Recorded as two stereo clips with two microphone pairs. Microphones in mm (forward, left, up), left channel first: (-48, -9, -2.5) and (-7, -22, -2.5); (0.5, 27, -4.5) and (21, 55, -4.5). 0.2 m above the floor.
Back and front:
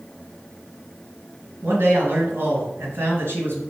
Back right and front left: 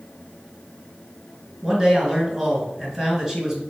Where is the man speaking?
15° right, 3 m.